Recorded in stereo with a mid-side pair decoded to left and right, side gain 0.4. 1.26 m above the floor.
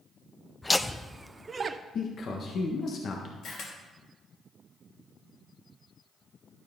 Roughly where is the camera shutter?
Left.